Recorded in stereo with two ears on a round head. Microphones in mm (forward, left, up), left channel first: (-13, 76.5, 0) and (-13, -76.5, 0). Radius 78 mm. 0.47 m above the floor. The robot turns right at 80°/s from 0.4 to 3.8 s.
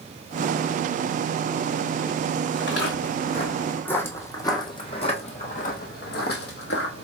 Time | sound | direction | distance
2.5 | footsteps | 75° left (ahead or behind) | 1.9 m